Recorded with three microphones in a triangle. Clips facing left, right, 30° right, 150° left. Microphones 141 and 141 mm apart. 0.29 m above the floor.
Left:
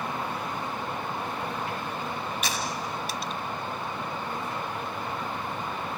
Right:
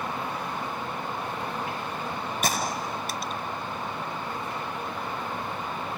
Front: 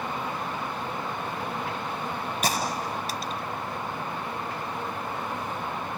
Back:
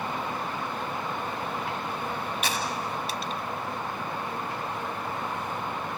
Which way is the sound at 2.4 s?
65° right.